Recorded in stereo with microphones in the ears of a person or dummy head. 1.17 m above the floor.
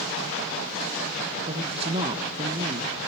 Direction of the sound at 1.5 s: 30° right (ahead or behind).